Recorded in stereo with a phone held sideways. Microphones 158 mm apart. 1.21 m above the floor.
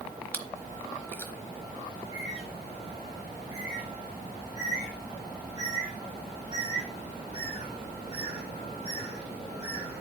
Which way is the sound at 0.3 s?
15° left (ahead or behind).